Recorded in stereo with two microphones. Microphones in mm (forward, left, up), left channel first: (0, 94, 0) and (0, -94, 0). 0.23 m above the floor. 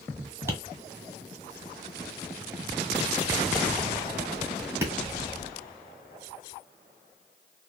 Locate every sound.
0.5 s tapping: 15° right (ahead or behind), 1.3 m